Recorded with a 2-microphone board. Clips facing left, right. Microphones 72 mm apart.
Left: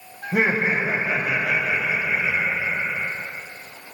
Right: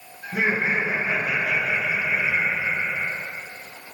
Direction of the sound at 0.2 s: 65° left (ahead or behind).